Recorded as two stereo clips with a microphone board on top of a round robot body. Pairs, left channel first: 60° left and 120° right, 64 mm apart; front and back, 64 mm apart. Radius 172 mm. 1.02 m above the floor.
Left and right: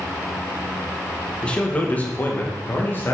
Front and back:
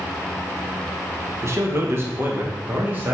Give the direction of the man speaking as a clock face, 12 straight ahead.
7 o'clock.